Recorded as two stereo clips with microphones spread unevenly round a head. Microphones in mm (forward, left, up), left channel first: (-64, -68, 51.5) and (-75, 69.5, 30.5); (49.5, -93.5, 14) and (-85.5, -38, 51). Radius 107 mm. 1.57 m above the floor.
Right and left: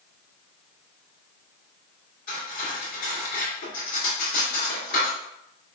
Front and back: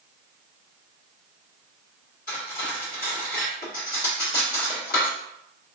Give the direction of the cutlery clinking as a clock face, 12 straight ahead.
2 o'clock.